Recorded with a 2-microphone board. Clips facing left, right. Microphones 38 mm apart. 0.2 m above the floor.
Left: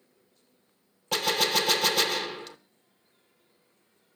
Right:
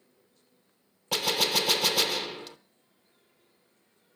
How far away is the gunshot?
About 0.9 m.